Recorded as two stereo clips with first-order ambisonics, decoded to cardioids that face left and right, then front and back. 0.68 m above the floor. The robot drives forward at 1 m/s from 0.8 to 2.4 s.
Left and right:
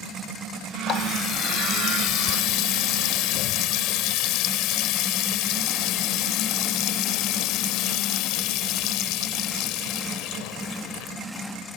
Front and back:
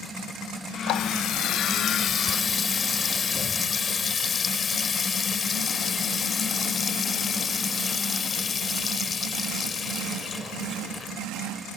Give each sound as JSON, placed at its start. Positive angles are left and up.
{"t": 0.9, "sound": "a running tap", "azimuth_deg": 35}